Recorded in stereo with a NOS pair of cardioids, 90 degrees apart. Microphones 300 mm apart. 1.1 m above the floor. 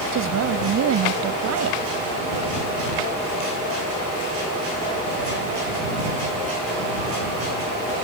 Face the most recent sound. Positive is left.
turn(degrees=-60)